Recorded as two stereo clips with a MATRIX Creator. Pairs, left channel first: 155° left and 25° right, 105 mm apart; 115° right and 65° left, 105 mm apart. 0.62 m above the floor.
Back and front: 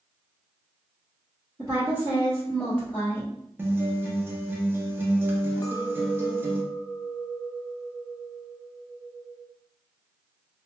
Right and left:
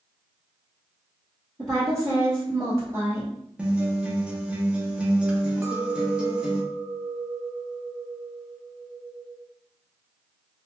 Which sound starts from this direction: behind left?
A clink, at 5.6 s.